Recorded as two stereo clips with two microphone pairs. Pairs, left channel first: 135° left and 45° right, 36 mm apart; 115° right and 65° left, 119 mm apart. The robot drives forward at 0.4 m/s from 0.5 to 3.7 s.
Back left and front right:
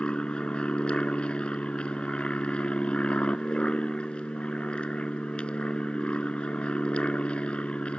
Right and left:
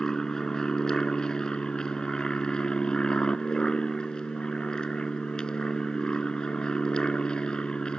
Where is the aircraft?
165° left.